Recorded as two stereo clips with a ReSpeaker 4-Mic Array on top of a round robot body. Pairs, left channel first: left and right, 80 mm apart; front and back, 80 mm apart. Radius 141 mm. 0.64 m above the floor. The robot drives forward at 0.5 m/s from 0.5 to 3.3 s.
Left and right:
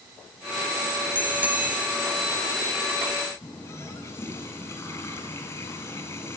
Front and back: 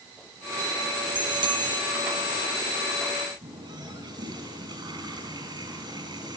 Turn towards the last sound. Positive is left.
turn(degrees=150)